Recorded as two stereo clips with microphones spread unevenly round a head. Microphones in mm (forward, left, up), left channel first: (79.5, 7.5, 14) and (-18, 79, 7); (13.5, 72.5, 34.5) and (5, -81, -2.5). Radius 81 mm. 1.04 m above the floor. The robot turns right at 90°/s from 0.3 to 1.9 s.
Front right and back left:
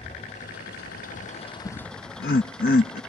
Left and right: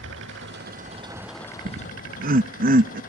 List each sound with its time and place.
0.0 s an engine running: 95° right; by 3.1 s 45° left
1.6 s laughter: 85° right; by 3.0 s 65° right